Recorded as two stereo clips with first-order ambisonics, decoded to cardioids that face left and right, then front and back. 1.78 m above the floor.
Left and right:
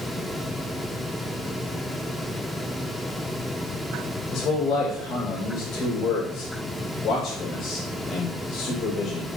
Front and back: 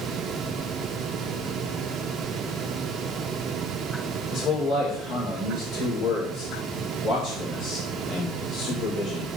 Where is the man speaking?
40° left, 6 m.